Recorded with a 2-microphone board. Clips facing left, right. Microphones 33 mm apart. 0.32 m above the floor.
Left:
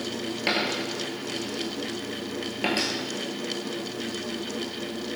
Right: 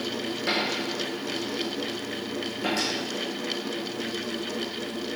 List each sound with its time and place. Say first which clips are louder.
0.5 s a dropped coin: left 1 dB; 50° left (ahead or behind), 1.0 m